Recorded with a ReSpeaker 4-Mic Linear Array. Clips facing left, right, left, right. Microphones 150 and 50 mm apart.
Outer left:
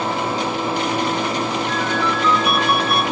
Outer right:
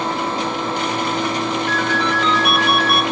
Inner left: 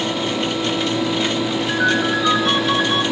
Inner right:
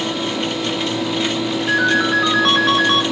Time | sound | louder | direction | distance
1.7 | a ringtone | outer right 1 dB, inner right 3 dB | 75° right (ahead or behind) | 2 m